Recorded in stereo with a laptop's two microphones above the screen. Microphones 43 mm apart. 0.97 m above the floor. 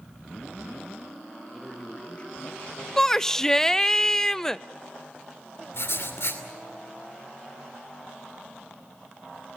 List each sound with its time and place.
1.5 s a man speaking: 5° left (ahead or behind), 2 m; by 2.9 s 60° left (ahead or behind), 1.3 m
3.0 s a shout: 10° left (ahead or behind), 0.5 m
5.7 s writing: 70° left (ahead or behind), 2.5 m